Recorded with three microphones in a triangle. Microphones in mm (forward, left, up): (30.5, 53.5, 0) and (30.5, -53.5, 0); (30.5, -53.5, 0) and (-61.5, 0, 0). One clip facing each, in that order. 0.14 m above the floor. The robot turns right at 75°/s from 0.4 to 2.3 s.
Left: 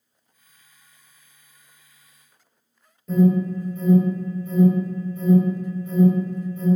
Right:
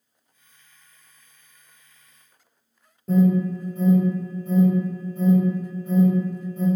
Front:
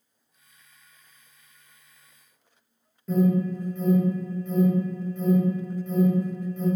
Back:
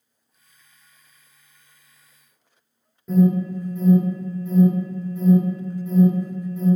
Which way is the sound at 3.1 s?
130° right.